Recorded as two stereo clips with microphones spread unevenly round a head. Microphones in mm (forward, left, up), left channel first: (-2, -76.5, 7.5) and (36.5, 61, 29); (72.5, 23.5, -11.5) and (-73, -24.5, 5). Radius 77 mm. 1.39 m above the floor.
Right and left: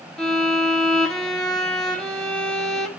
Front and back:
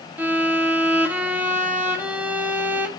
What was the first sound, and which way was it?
A violin, 150° left.